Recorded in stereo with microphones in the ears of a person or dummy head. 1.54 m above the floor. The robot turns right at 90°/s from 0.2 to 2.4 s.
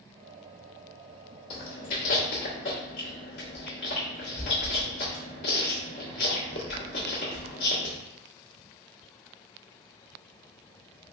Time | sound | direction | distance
1.5 | chewing | 35° left (ahead or behind) | 1.7 m